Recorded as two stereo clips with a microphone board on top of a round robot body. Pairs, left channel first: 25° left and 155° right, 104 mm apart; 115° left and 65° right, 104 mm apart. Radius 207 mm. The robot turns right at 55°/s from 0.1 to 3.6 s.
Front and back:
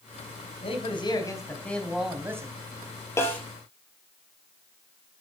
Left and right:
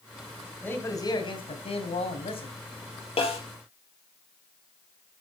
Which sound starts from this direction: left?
A snare drum, at 3.2 s.